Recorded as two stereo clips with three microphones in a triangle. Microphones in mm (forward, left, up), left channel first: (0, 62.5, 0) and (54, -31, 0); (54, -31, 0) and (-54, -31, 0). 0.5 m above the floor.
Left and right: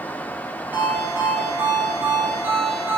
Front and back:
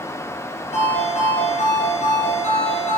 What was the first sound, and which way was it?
A ringtone, 15° left.